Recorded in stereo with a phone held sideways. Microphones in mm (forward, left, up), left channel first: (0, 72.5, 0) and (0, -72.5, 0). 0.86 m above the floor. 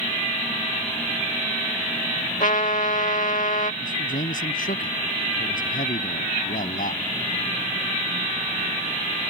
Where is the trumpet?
65° left (ahead or behind).